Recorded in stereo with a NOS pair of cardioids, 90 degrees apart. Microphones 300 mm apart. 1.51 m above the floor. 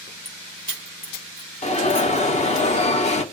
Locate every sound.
0.2 s keys jangling: 25° left, 2 m; by 2.6 s 40° left, 3 m
1.6 s an alarm: 20° left, 1.5 m